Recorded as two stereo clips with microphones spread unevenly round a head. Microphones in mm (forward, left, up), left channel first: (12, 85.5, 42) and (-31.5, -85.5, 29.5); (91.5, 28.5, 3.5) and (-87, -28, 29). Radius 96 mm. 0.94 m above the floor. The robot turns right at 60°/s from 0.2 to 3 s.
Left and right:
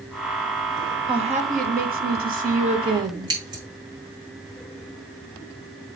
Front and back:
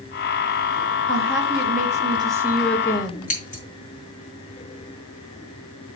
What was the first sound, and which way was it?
A woman speaking, 160° right.